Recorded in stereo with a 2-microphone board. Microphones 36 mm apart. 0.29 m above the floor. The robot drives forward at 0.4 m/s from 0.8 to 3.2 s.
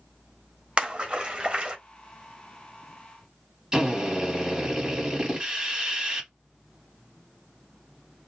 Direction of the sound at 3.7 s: 20° right (ahead or behind).